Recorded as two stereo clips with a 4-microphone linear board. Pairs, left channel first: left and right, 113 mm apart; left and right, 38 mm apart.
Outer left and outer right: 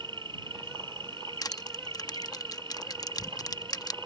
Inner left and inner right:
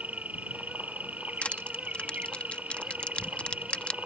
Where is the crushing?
35° left (ahead or behind).